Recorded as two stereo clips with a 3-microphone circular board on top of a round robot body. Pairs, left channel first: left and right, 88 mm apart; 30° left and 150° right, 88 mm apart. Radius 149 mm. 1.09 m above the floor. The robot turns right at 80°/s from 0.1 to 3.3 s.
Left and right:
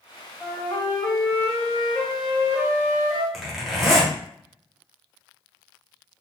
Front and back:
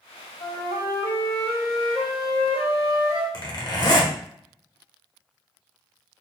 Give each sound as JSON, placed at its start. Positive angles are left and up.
{"t": 0.4, "sound": "a flute", "azimuth_deg": 15, "distance_m": 0.9}
{"t": 3.3, "sound": "a zipper", "azimuth_deg": -5, "distance_m": 1.3}